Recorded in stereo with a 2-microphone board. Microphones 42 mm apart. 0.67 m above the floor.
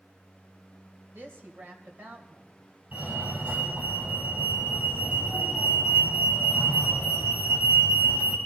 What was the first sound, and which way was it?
A woman speaking, 55° right (ahead or behind).